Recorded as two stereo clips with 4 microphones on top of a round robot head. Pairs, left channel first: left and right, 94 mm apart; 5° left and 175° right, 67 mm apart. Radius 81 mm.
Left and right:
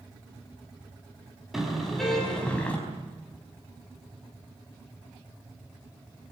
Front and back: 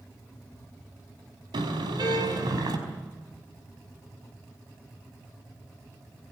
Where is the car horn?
175° right, 5 m; by 2.8 s 170° left, 5 m.